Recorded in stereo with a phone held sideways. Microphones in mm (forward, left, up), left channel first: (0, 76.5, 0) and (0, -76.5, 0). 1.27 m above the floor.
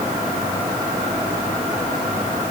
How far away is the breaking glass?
No breaking glass in this recording.